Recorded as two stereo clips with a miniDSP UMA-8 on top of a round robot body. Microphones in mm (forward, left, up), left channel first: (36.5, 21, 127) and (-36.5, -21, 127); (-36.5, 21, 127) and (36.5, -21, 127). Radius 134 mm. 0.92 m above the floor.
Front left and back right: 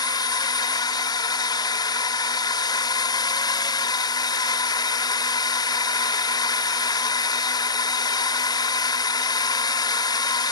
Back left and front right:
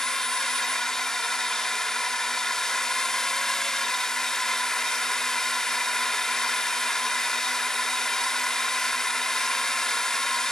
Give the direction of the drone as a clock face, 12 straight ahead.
10 o'clock.